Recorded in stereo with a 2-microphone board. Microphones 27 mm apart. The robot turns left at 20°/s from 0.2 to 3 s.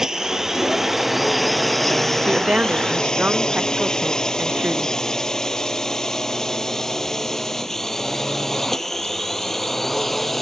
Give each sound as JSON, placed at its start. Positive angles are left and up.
{"t": 0.0, "sound": "a drone", "side_deg": -20}
{"t": 2.2, "sound": "a woman speaking", "side_deg": -40}